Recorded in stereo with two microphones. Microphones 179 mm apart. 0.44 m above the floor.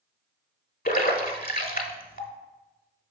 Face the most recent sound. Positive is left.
turn(degrees=55)  # may be behind; listen again after turning